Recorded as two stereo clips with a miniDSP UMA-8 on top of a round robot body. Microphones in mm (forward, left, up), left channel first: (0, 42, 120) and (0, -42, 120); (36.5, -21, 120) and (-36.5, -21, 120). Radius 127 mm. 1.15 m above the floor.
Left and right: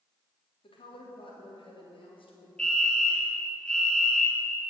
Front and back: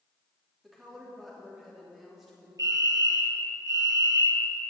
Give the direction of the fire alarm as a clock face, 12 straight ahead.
6 o'clock.